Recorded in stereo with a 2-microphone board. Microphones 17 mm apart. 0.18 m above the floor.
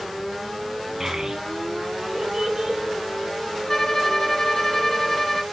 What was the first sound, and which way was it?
A child speaking, 25° right (ahead or behind).